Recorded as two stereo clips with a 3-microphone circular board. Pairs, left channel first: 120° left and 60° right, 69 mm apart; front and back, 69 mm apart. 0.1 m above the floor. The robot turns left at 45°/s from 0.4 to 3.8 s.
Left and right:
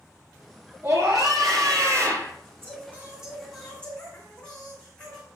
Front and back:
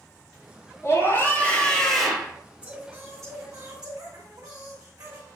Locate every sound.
0.8 s a scream: 40° right, 2.5 m; by 2.3 s 105° right, 2.5 m
2.6 s singing: 110° right, 4 m; by 5.3 s 165° right, 4 m